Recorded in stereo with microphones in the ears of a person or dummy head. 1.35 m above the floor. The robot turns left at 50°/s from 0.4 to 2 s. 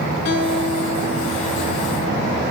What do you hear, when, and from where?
0.2 s a guitar: 75° left, 2.5 m; by 2.4 s 5° right, 2.5 m